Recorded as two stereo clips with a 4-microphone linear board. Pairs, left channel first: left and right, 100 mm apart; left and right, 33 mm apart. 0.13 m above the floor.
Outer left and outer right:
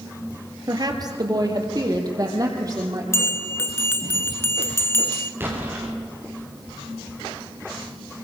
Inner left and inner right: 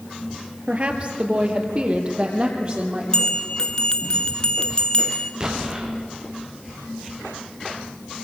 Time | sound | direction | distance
0.7 | a woman speaking | 40° right (ahead or behind) | 2.5 m
3.1 | a bell | 25° left (ahead or behind) | 1.4 m
5.4 | an explosion | 20° right (ahead or behind) | 4.5 m